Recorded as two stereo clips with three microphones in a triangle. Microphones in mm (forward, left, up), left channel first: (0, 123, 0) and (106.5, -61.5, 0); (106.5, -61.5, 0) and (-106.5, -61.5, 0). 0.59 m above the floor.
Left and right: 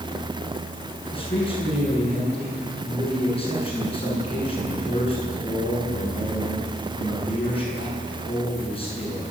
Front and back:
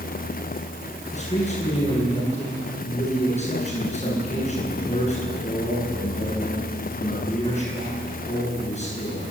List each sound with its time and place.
1.1 s a man speaking: 55° left, 8.5 m